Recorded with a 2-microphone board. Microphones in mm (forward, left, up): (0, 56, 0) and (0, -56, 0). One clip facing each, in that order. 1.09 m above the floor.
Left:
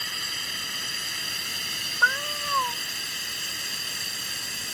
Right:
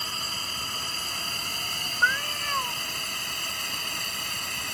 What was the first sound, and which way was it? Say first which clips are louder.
A drone: right 2 dB; 40° right (ahead or behind).